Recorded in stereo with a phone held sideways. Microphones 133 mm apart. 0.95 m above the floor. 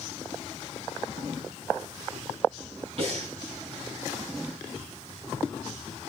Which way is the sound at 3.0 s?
50° right (ahead or behind).